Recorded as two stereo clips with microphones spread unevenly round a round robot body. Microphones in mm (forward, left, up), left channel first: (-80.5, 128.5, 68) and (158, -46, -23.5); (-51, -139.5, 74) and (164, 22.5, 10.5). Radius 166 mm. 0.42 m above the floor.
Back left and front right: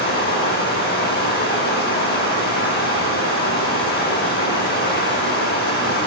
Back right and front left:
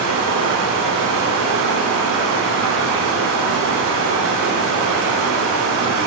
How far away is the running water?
About 2.5 m.